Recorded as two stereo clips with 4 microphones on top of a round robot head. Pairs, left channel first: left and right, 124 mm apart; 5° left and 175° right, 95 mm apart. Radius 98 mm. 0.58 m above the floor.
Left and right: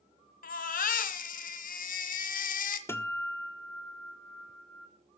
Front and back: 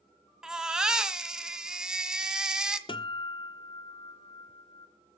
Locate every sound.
0.4 s a baby crying: 100° left, 1.6 m
2.9 s a guitar: 20° left, 1.7 m